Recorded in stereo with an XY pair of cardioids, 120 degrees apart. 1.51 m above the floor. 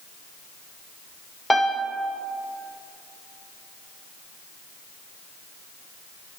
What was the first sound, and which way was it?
A piano, 5° left.